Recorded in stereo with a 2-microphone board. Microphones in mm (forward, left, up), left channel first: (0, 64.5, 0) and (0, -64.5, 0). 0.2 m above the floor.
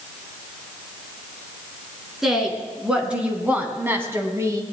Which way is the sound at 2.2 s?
5° right (ahead or behind).